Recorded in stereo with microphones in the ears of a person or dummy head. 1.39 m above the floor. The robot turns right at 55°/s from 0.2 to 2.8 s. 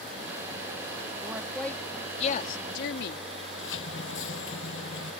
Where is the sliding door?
80° left.